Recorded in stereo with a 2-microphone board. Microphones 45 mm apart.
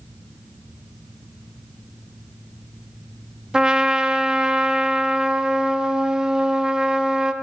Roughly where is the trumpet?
Centre.